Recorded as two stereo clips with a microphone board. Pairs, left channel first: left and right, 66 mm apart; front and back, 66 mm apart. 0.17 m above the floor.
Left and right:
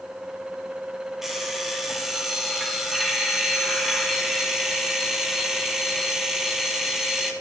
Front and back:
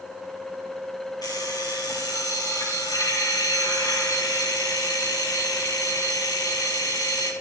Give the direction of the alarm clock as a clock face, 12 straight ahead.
12 o'clock.